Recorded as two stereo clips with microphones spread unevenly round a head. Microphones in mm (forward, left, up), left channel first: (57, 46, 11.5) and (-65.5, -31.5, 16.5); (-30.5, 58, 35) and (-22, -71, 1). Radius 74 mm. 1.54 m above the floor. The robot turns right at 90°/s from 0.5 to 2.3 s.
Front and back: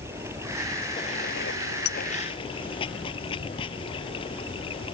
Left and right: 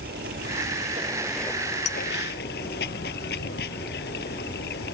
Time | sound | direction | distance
0.0 | running water | 75° right | ?
1.9 | a clink | 50° left | ?